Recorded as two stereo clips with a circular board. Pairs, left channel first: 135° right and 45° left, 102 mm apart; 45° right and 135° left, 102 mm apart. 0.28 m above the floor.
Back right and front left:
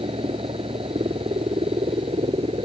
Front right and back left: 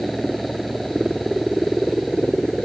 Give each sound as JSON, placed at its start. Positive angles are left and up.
{"t": 0.0, "sound": "a helicopter", "azimuth_deg": 45}